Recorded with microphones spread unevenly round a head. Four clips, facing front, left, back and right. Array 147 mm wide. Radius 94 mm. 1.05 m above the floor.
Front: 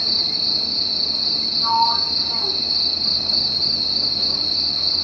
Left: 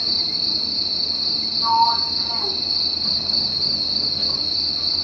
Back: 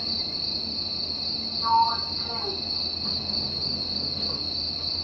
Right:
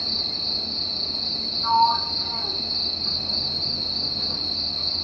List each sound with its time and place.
0.0 s an insect: 25° left, 0.8 m
1.6 s a sliding door: 150° left, 1.1 m